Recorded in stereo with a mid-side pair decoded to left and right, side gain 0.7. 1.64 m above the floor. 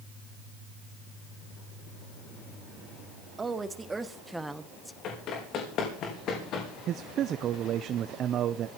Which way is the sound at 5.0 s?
50° left.